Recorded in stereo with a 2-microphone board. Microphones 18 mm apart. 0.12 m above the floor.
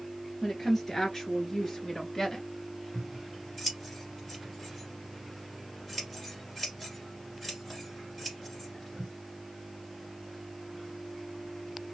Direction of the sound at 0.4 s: 20° left (ahead or behind).